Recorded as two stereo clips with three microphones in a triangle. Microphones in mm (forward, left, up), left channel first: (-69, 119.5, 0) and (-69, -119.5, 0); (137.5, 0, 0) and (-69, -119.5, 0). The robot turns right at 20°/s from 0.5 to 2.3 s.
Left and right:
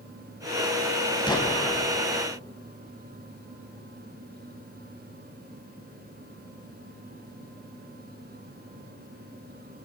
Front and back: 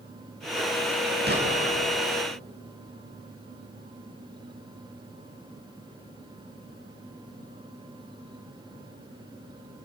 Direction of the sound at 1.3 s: 165° left.